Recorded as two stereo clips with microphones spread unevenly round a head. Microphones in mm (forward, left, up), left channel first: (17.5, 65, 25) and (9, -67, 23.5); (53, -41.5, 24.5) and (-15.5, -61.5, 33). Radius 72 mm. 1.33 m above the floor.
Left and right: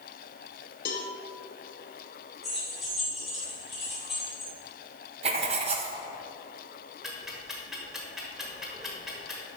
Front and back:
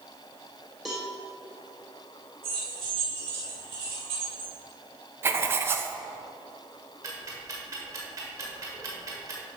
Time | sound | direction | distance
0.8 | a cowbell | 110° left | 0.9 m
2.4 | keys jangling | 175° left | 3 m
5.2 | writing | 130° right | 0.6 m
7.0 | ticking | straight behind | 1.3 m